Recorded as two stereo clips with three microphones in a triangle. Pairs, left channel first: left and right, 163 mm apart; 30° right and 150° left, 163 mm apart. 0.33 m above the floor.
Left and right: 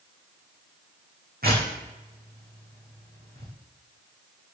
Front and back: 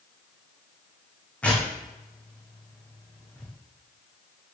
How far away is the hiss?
I don't hear a hiss.